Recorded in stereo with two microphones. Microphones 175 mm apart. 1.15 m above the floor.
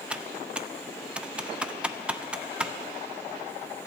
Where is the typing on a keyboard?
5° right (ahead or behind), 0.6 m.